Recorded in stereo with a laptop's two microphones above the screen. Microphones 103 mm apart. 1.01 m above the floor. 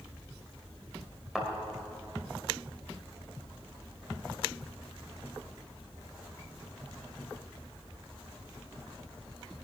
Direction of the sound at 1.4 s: 5° right (ahead or behind).